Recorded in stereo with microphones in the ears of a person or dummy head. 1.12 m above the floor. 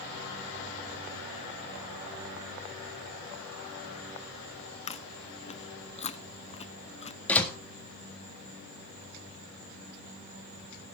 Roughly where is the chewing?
Left.